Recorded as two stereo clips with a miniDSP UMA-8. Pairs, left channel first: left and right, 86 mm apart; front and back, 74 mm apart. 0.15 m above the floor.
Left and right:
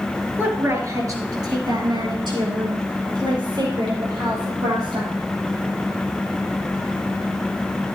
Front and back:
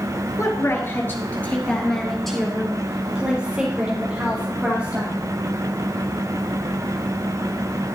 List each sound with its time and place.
0.4 s a woman speaking: 30° right, 3 m; by 5.1 s 115° right, 6.5 m